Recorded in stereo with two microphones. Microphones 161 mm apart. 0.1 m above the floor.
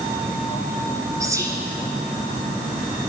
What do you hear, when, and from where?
1.2 s whispering: 20° right (ahead or behind), 1.2 m